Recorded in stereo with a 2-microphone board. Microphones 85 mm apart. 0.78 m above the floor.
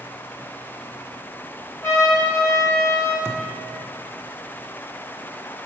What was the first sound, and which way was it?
A trumpet, 35° left (ahead or behind).